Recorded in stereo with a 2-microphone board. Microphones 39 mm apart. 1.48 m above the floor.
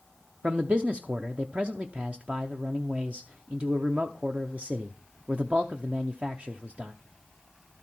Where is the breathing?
No breathing in this recording.